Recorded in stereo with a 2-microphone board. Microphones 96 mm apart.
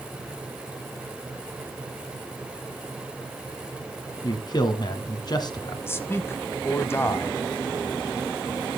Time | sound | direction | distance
4.2 | a man speaking | 50° left (ahead or behind) | 1.5 m
5.9 | a man speaking | 25° left (ahead or behind) | 1.0 m